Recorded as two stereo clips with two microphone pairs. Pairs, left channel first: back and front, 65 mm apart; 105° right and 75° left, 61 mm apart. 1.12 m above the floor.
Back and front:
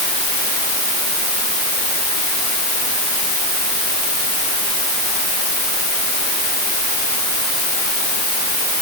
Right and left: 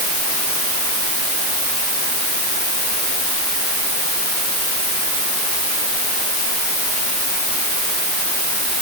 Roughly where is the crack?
No crack in this recording.